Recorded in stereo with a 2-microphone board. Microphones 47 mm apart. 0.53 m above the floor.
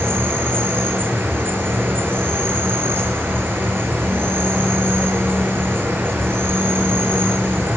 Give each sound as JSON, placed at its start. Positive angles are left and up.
{"t": 0.0, "sound": "an insect", "side_deg": -45, "distance_m": 8.5}